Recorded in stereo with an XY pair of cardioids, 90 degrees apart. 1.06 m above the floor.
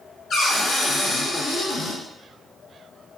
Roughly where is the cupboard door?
Ahead left.